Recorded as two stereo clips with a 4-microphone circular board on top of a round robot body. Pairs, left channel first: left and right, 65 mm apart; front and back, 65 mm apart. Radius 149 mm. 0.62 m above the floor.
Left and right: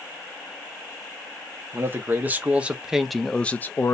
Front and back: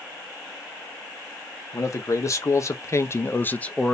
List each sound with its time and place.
1.7 s a man speaking: 35° right, 1.2 m; by 4.0 s 80° left, 0.7 m